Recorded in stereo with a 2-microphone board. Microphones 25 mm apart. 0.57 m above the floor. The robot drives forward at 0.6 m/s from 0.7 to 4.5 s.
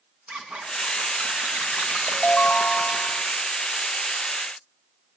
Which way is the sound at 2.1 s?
45° left (ahead or behind).